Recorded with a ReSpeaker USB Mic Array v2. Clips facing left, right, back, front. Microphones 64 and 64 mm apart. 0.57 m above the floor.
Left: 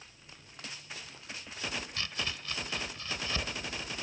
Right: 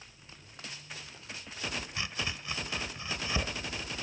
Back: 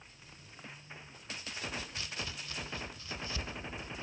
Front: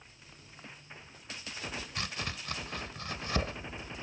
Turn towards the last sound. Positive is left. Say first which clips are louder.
# right 1 dB, front 4 dB
turn(degrees=-20)